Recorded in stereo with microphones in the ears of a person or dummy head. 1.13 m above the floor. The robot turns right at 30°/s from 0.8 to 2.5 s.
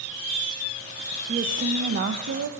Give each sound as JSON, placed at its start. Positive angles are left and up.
{"t": 1.3, "sound": "a woman speaking", "azimuth_deg": -145, "distance_m": 0.6}